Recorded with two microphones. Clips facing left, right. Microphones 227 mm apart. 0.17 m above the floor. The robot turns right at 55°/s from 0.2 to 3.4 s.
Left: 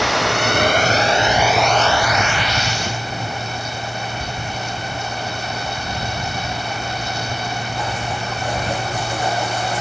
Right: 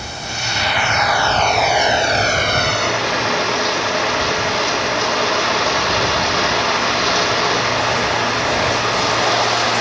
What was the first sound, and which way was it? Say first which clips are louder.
Running water: left 10 dB; 105° left.